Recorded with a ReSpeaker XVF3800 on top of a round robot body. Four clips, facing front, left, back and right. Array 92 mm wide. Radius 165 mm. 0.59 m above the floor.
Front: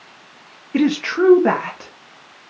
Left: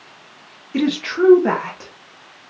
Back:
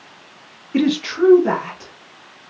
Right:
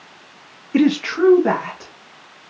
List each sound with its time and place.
0.7 s a woman speaking: 60° right, 0.9 m; by 1.9 s 15° left, 1.3 m